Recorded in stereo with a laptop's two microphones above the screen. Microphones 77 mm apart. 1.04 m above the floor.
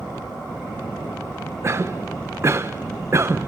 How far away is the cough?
About 0.6 m.